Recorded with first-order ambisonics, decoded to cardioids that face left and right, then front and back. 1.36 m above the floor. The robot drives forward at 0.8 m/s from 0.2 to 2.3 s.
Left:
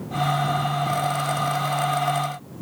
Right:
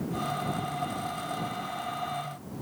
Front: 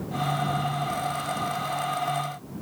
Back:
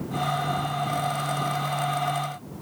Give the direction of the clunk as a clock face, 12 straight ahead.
No clunk in this recording.